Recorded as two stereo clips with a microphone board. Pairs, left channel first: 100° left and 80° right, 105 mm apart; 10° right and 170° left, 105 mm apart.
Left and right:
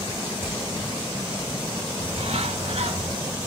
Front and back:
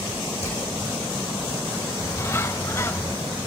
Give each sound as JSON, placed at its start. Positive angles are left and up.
{"t": 0.4, "sound": "hammering", "azimuth_deg": -10, "distance_m": 8.5}
{"t": 2.0, "sound": "a bird", "azimuth_deg": -75, "distance_m": 0.6}